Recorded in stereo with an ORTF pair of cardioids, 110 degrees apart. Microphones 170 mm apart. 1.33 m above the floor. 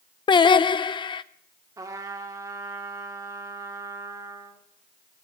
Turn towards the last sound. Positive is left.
turn(degrees=-20)